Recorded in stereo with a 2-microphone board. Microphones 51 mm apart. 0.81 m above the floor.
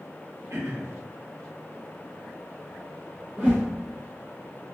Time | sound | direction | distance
0.5 | throat clearing | 65° right (ahead or behind) | 1.1 m
3.4 | a whoosh | 30° right (ahead or behind) | 1.4 m